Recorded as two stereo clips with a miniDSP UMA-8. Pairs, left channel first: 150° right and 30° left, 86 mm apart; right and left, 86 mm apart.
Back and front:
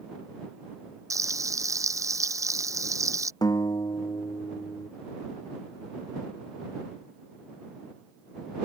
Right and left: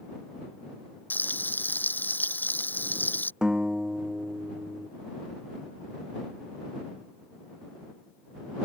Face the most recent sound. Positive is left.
turn(degrees=170)